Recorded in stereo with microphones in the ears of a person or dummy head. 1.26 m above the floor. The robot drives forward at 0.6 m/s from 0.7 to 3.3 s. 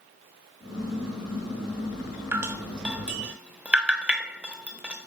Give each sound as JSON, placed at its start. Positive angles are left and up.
{"t": 2.3, "sound": "dripping", "side_deg": -10, "distance_m": 0.5}